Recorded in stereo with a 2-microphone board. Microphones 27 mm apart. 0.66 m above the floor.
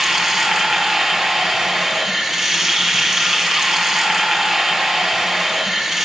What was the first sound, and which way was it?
Running water, 20° right (ahead or behind).